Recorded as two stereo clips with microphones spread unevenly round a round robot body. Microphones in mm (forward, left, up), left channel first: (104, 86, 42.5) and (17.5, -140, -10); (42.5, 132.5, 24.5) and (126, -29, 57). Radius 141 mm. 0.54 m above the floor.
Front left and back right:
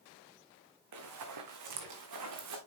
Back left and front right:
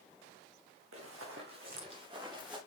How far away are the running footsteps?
About 3 m.